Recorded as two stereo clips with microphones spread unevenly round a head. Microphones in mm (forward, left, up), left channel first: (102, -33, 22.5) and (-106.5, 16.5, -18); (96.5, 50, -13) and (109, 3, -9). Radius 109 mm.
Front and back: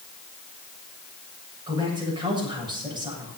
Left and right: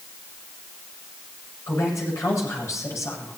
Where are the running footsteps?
I don't hear running footsteps.